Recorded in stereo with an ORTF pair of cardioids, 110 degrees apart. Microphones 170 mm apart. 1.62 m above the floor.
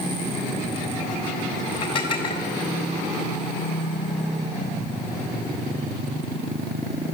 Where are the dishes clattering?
30° left, 5.5 m.